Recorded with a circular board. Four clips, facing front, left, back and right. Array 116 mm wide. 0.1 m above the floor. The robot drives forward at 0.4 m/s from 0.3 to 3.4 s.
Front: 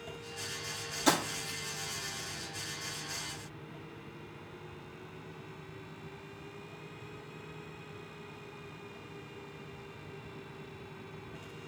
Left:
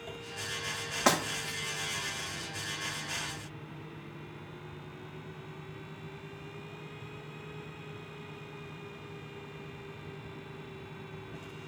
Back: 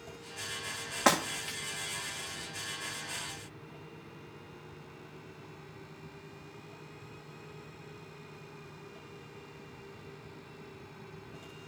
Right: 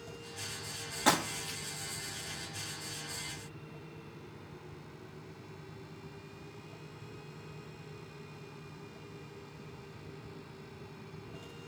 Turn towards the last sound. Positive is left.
turn(degrees=160)